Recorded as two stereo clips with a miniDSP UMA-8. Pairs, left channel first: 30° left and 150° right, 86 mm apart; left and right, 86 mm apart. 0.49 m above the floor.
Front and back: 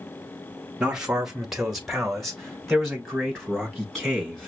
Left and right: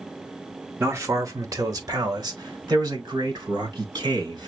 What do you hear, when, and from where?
0.8 s a man speaking: 80° right, 0.9 m; by 4.5 s 55° right, 2.5 m